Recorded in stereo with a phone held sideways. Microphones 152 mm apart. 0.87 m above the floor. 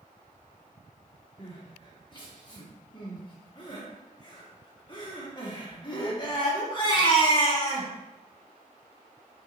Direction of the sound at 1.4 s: 30° left (ahead or behind).